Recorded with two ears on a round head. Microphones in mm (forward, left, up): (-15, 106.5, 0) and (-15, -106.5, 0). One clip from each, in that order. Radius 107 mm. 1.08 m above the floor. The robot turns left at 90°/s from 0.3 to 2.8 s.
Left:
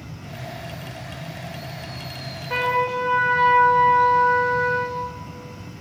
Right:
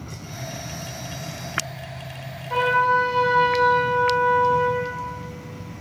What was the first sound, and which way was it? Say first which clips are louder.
A trumpet: right 3 dB; 80° left.